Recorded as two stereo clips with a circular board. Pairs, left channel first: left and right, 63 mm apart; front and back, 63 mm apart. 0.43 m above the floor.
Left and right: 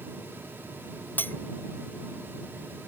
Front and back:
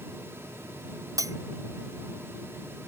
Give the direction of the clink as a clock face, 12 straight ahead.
7 o'clock.